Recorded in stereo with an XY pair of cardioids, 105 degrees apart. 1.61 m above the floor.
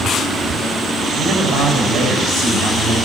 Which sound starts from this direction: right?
A man speaking, at 1.2 s.